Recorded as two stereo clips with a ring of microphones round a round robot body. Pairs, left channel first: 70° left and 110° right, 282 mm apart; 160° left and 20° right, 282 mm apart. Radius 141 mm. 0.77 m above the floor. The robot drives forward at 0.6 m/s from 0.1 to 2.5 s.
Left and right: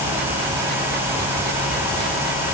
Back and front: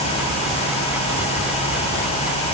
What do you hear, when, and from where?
Only background noise.